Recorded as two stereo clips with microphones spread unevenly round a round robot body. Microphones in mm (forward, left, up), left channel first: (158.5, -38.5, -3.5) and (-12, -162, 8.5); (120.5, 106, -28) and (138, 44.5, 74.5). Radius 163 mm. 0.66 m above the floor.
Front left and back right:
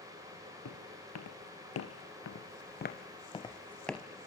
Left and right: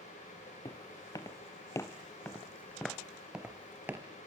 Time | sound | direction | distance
0.7 | footsteps | 55° left | 4 m